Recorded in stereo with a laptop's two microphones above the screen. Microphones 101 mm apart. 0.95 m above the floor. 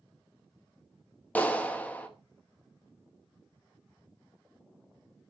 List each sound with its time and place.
1.4 s a clap: 15° left (ahead or behind), 0.9 m